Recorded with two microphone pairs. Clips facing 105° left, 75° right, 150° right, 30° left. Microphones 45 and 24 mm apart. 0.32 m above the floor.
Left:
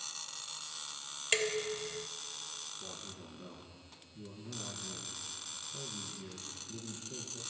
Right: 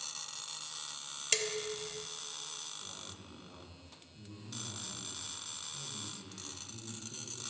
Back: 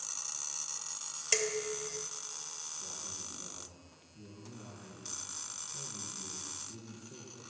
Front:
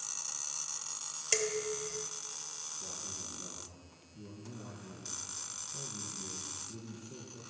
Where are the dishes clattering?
140° left, 0.5 m.